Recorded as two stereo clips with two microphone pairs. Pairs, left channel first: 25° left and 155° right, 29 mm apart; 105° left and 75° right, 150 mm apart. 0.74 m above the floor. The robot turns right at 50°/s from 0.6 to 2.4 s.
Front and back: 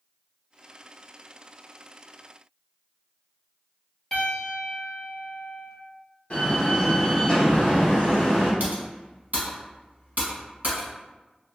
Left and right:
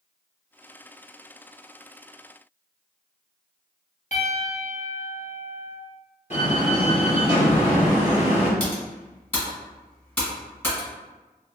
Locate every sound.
4.1 s a piano: 95° left, 0.8 m
6.3 s a door slam: 70° left, 1.4 m
8.6 s typing on a keyboard: straight behind, 1.4 m